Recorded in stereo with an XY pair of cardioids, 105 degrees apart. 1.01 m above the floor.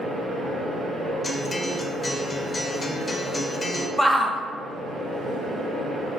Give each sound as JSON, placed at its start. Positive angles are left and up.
{"t": 0.0, "sound": "a fan", "azimuth_deg": -45, "distance_m": 2.0}
{"t": 1.2, "sound": "a guitar", "azimuth_deg": 20, "distance_m": 0.6}
{"t": 4.0, "sound": "a shout", "azimuth_deg": 5, "distance_m": 0.6}